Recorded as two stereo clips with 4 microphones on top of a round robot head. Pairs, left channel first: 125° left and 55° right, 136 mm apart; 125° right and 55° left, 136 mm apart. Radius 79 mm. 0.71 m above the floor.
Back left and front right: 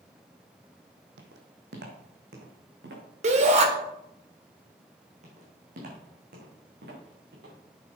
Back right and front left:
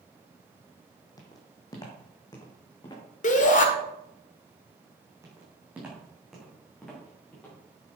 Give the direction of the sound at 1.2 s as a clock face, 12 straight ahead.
2 o'clock.